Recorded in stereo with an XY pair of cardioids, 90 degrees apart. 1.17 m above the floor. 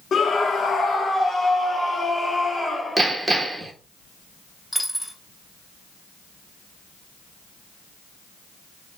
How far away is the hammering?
About 1.2 m.